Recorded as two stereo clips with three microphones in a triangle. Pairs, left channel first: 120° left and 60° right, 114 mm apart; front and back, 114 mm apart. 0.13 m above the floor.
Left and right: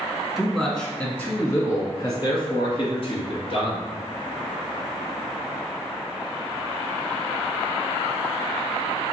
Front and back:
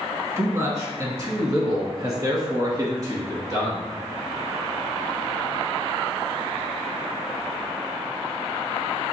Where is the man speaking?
145° right, 1.3 m; by 3.8 s 130° left, 2 m.